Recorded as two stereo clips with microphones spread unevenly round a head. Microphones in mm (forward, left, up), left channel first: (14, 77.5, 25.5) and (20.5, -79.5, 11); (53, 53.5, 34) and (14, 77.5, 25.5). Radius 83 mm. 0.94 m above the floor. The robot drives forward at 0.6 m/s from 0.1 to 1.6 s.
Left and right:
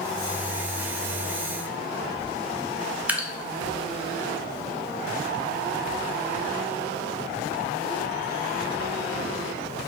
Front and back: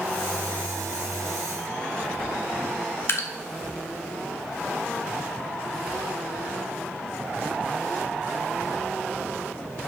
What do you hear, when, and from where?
3.1 s dripping: 15° right, 0.9 m